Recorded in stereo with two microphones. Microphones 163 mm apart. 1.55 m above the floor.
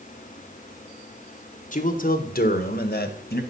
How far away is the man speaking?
About 1.4 m.